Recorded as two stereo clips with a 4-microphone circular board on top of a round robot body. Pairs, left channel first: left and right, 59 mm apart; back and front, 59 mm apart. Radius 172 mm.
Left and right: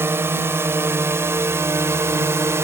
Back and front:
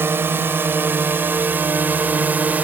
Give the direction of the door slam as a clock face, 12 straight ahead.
I don't hear a door slam.